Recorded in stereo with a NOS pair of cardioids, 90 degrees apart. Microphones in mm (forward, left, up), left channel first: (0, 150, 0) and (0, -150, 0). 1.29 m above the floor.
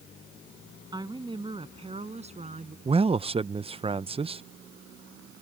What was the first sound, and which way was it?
A woman speaking, 15° right.